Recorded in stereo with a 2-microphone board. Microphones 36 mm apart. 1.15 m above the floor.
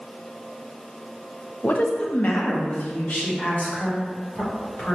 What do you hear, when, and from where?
1.6 s a woman speaking: 45° left (ahead or behind), 0.6 m